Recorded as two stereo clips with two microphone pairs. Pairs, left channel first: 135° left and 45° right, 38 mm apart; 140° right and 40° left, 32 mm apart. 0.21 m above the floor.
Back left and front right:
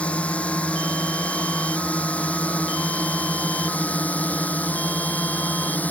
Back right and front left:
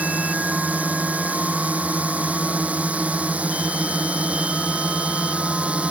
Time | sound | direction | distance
0.0 | a drone | 75° left | ?